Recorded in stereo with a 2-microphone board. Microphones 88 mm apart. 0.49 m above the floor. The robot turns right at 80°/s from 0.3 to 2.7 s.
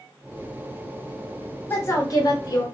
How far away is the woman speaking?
About 1.1 m.